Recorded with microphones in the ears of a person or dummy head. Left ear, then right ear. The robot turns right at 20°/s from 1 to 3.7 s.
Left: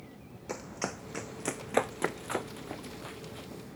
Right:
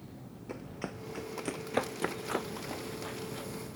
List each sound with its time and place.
0.5 s running footsteps: 35° left (ahead or behind); by 3.5 s 10° right (ahead or behind)